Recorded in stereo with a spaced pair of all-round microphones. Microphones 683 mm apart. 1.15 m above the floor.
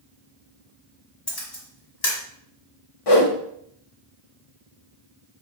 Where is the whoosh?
55° left (ahead or behind), 0.7 m.